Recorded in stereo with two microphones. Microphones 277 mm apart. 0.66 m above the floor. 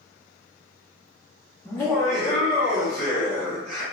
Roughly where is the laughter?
Centre.